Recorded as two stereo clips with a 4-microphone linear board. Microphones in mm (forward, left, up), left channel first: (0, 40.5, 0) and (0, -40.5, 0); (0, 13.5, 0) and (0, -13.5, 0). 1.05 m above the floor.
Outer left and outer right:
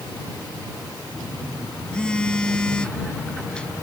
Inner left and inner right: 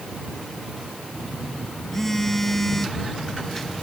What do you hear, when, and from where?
1.1 s a phone buzzing: 10° left (ahead or behind)